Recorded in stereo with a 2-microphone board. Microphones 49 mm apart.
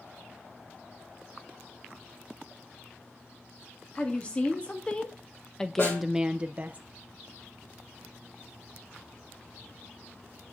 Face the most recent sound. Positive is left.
turn(degrees=50)  # may be behind; listen again after turning